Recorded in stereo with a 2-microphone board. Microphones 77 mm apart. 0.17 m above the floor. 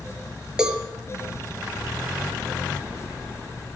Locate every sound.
0.6 s a cowbell: 10° right (ahead or behind), 3 m